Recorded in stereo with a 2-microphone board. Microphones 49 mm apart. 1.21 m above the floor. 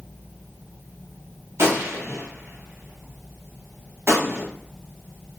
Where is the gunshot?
55° right (ahead or behind), 0.9 m.